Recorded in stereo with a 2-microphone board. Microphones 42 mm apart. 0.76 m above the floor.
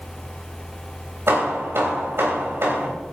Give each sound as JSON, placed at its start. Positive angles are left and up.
{"t": 1.3, "sound": "hammering", "side_deg": -70, "distance_m": 4.0}